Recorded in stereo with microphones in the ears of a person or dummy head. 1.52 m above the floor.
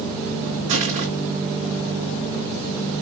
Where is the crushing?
35° right (ahead or behind), 5 m.